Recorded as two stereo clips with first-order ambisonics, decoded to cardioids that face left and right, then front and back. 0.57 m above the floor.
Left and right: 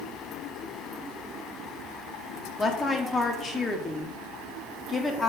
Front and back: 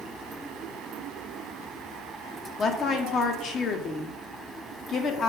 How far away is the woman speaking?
About 0.8 m.